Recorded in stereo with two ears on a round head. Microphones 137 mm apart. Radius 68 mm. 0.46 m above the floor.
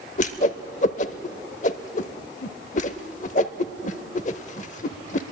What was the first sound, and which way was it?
A whoosh, 50° left (ahead or behind).